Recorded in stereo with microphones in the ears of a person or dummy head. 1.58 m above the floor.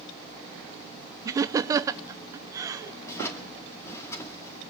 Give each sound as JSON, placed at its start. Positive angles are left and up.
{"t": 1.2, "sound": "laughter", "side_deg": -15, "distance_m": 0.6}
{"t": 3.0, "sound": "a drawer", "side_deg": 15, "distance_m": 1.9}